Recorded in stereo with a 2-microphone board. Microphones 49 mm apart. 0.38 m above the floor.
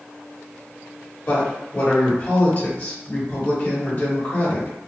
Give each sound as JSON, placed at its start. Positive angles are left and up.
{"t": 1.3, "sound": "a woman speaking", "side_deg": 40, "distance_m": 2.0}